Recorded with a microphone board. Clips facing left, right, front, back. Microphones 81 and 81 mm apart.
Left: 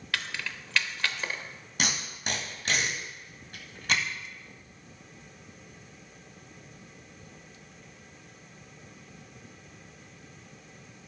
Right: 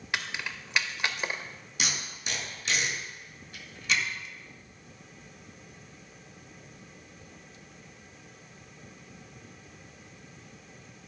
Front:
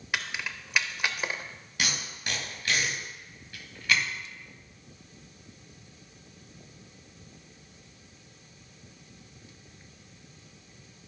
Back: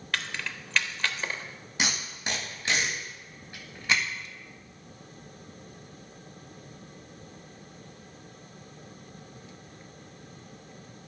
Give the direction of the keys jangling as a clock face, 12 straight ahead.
2 o'clock.